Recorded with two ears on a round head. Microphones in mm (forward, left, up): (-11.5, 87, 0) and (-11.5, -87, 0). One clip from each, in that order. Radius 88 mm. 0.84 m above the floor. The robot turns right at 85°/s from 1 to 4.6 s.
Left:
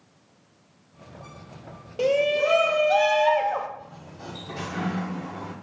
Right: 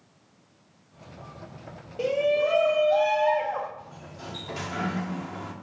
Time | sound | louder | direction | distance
2.0 | a shout | left 2 dB | 20° left | 0.8 m
3.8 | a sliding door | even | 130° right | 1.4 m